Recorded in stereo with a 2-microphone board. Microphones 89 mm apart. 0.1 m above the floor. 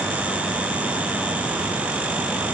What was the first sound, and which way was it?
Only background noise.